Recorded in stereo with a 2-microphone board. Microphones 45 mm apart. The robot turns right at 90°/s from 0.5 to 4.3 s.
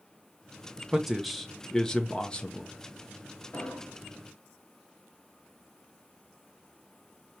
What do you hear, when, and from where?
0.9 s a man speaking: 10° right (ahead or behind), 0.7 m; by 2.7 s 15° left (ahead or behind), 0.7 m
3.5 s an explosion: 115° left, 2.0 m; by 4.0 s 160° left, 2.0 m